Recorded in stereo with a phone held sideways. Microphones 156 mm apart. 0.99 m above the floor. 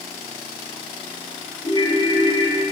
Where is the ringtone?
30° left (ahead or behind), 5.5 m.